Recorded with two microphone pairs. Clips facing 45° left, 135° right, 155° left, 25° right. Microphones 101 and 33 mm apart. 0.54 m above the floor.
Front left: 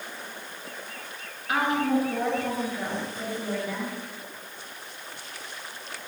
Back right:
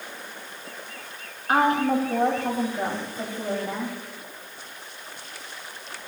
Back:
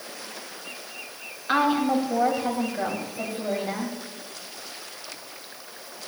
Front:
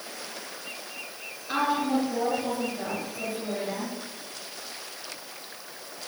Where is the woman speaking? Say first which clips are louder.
Back right 4 dB, back 4 dB; 170° right, 4 m.